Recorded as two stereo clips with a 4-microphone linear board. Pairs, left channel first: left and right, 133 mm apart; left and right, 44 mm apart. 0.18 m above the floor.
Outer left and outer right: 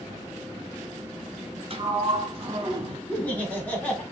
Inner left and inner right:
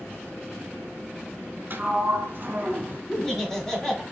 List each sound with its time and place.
1.7 s a sliding door: 45° right (ahead or behind), 0.6 m
3.1 s laughter: 10° left (ahead or behind), 1.0 m